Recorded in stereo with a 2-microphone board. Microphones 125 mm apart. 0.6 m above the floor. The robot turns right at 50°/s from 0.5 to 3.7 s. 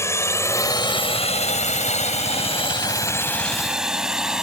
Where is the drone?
20° left (ahead or behind); by 4.4 s 5° right (ahead or behind).